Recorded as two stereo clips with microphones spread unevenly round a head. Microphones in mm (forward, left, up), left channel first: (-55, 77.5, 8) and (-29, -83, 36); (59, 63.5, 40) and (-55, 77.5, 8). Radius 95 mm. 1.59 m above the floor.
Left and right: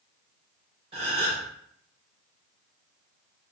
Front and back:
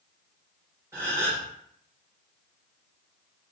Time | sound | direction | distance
0.9 | a gasp | 100° right | 0.8 m